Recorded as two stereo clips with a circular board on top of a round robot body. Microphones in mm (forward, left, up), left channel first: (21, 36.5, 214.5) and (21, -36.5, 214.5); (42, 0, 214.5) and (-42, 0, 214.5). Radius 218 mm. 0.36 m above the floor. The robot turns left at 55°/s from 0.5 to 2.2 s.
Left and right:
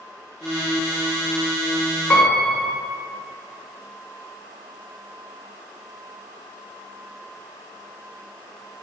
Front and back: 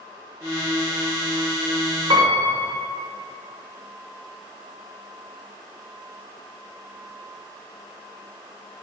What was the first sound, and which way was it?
A piano, 160° left.